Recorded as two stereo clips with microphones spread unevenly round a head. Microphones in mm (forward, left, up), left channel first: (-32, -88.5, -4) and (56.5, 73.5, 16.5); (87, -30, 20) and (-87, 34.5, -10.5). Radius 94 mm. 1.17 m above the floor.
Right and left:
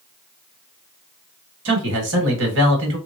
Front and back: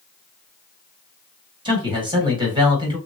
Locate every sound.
1.6 s a man speaking: 95° left, 1.8 m